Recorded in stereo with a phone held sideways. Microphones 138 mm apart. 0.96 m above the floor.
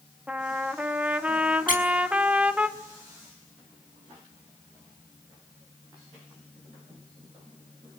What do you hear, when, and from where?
0.3 s a trumpet: 10° right (ahead or behind), 1.8 m
1.7 s a squeak: 70° left (ahead or behind), 6 m